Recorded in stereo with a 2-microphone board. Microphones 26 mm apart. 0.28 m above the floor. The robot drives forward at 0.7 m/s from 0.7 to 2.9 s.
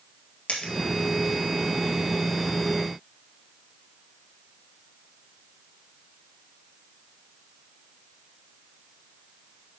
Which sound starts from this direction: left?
A dropped coin, at 0.5 s.